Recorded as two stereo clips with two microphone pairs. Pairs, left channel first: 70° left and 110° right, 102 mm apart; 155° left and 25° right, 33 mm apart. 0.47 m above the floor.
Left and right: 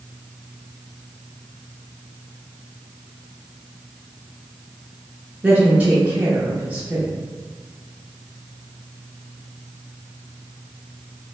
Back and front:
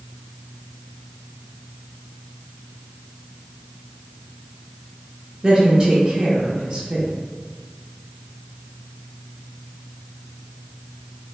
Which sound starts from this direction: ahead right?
A woman speaking, at 5.4 s.